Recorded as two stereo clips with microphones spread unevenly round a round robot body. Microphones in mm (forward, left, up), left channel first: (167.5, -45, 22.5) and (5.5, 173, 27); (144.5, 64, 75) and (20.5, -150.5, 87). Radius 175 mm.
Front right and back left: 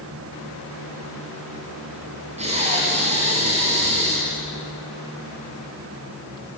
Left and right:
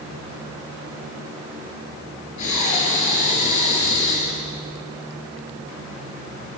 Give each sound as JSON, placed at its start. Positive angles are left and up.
{"t": 2.4, "sound": "breathing", "azimuth_deg": 60, "distance_m": 7.5}